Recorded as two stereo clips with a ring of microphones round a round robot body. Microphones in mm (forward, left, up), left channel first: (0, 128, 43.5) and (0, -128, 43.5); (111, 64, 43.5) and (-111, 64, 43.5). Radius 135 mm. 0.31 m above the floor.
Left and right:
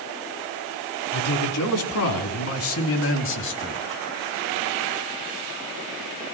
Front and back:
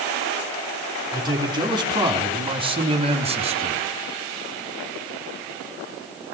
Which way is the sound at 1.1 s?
110° left.